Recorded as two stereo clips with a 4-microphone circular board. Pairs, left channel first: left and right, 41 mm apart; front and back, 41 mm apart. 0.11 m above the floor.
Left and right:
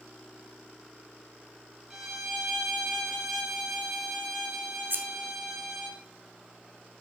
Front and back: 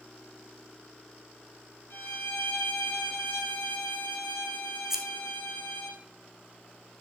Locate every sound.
1.9 s a violin: 10° right, 2.5 m
4.9 s scissors: 100° right, 1.0 m